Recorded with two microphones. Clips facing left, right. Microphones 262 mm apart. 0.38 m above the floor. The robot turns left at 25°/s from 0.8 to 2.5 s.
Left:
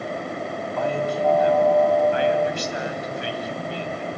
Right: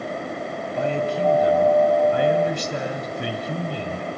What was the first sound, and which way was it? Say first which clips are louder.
A man speaking: right 1 dB; 25° right.